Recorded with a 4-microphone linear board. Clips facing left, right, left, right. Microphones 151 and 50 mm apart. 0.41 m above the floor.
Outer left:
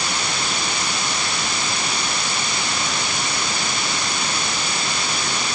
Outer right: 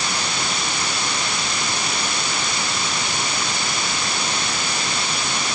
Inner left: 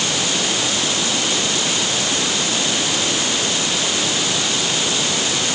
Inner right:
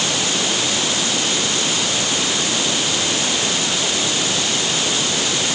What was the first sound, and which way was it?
Only background noise.